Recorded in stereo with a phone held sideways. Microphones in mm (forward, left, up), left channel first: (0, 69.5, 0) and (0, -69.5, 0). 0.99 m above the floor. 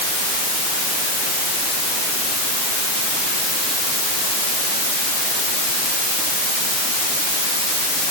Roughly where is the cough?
I don't hear a cough.